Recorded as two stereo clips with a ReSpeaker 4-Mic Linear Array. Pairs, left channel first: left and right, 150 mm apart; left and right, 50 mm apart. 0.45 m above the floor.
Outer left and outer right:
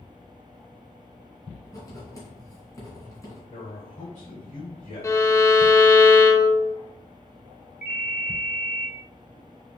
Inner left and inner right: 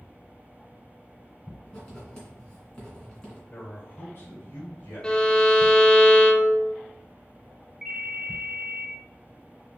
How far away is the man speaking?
About 2 m.